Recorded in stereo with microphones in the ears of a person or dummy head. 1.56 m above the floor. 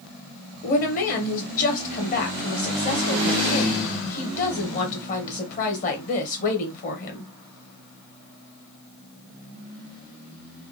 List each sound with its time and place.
0.6 s a woman speaking: 40° left (ahead or behind), 1.1 m